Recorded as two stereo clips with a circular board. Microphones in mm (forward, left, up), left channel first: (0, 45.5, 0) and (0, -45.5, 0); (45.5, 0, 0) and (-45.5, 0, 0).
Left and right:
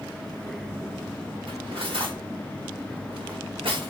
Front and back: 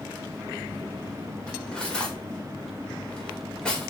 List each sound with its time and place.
1.5 s cutlery clinking: 80° right, 4 m